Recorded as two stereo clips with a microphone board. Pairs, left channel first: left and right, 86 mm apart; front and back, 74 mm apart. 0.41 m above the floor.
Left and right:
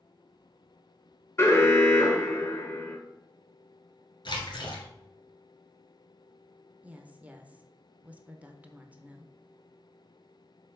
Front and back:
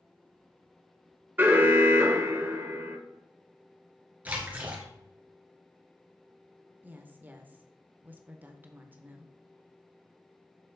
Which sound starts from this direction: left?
A splash, at 4.2 s.